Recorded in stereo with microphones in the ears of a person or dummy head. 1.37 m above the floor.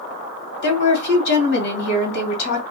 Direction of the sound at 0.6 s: 70° left (ahead or behind).